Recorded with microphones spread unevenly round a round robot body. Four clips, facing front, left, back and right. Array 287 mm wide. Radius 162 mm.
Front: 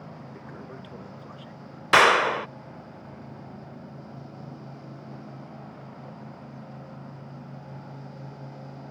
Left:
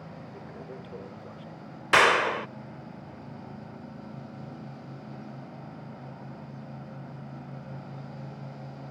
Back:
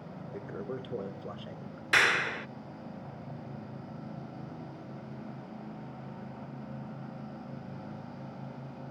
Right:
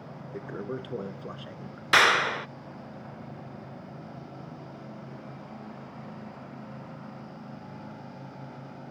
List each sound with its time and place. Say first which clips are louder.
0.3 s a toilet flushing: right 10 dB, back 3 dB; 95° right
1.9 s a clap: left 1 dB, front 10 dB; 10° left